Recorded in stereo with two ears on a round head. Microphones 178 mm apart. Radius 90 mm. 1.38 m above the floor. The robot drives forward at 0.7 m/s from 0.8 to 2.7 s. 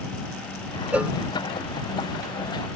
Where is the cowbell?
5° right (ahead or behind).